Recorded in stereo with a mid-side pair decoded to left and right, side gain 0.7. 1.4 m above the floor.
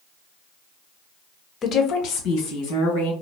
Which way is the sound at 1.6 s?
35° left.